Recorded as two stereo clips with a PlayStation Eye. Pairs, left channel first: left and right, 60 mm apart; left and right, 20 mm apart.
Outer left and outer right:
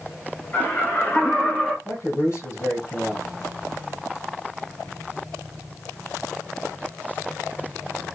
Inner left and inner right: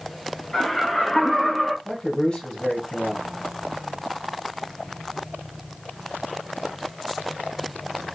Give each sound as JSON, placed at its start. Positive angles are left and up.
{"t": 0.5, "sound": "laughter", "side_deg": 35, "distance_m": 1.9}
{"t": 1.9, "sound": "a man speaking", "side_deg": 45, "distance_m": 2.5}